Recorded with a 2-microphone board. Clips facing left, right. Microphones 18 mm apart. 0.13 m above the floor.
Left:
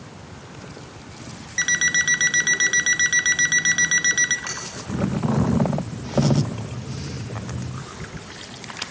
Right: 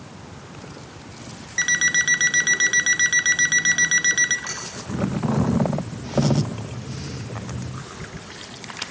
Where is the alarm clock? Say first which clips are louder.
Even; centre (ahead or behind), 0.9 m.